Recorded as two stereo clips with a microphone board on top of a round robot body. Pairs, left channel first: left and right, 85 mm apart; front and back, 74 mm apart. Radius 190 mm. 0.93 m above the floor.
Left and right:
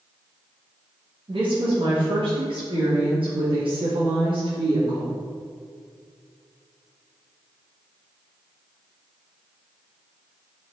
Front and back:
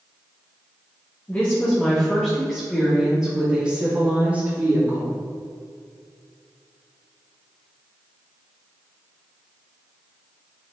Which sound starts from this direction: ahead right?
A woman speaking, at 1.3 s.